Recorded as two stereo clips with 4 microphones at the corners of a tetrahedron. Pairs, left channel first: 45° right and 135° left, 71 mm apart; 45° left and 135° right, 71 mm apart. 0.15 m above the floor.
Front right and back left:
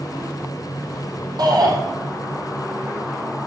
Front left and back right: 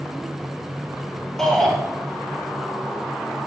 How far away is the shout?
About 3.5 m.